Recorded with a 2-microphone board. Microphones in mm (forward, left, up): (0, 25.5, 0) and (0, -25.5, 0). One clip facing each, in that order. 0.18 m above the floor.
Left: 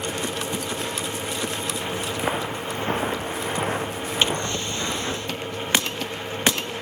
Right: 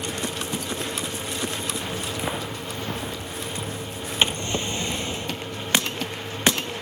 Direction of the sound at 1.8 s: 15° left (ahead or behind).